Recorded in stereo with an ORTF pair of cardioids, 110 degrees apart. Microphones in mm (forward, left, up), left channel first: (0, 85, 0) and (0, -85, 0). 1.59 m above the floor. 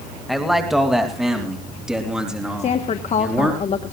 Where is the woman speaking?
40° left, 1.4 m.